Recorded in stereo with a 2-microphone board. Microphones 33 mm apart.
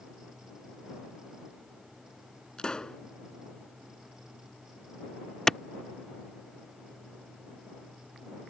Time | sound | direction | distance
2.6 | a pop | 25° left (ahead or behind) | ?
5.5 | a clap | 20° left (ahead or behind) | ?